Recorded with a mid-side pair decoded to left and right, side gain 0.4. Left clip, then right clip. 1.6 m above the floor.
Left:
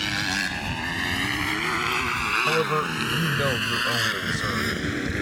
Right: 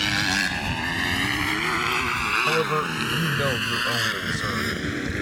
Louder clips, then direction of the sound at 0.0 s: Right 3 dB; 25° right.